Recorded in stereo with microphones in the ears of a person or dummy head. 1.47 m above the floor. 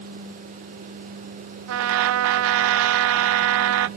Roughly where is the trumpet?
Right.